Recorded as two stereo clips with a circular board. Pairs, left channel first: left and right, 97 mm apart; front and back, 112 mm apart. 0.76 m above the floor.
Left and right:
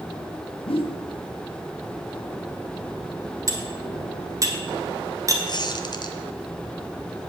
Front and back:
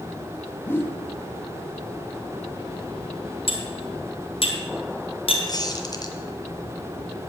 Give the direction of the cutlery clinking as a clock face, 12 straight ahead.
1 o'clock.